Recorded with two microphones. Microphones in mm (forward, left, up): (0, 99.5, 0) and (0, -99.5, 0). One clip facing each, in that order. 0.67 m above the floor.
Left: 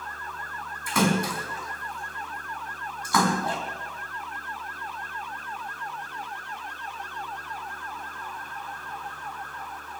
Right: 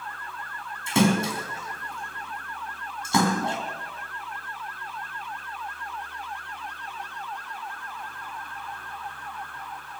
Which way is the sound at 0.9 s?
25° right (ahead or behind).